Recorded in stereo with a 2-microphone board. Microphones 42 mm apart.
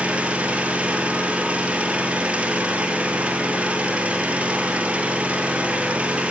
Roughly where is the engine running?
Right.